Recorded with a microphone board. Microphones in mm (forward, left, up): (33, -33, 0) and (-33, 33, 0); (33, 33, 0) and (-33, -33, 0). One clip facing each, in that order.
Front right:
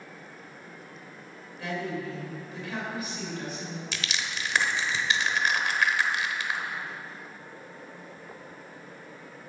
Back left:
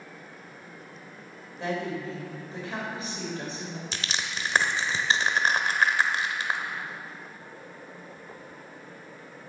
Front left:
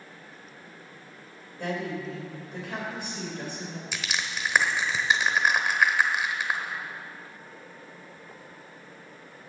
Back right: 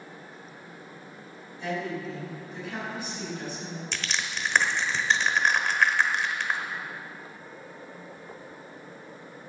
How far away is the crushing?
About 1.1 m.